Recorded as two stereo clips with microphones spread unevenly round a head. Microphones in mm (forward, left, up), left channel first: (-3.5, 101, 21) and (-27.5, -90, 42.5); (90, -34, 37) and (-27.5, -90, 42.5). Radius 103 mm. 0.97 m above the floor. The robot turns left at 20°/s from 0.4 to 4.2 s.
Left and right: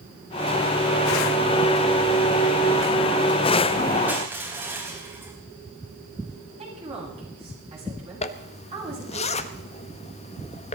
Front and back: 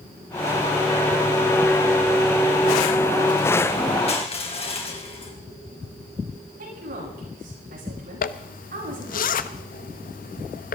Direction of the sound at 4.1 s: 15° right.